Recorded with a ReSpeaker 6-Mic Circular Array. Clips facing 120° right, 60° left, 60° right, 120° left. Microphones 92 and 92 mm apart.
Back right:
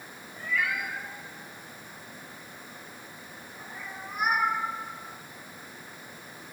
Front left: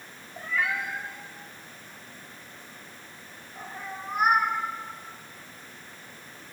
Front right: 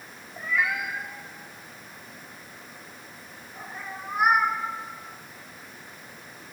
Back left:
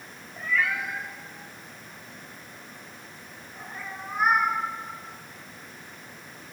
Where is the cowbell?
I don't hear a cowbell.